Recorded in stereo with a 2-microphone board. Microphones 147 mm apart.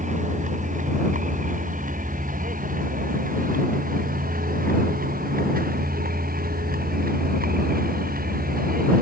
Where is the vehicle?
60° right (ahead or behind); by 9.0 s 80° right.